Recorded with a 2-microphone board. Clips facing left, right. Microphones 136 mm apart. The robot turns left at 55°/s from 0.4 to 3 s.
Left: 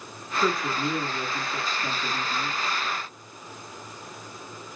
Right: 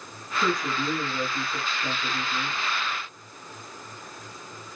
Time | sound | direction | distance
0.4 | a woman speaking | 5° left (ahead or behind) | 1.0 m